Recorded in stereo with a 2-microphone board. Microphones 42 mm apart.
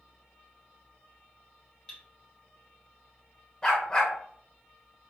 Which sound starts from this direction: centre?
Cutlery clinking, at 1.9 s.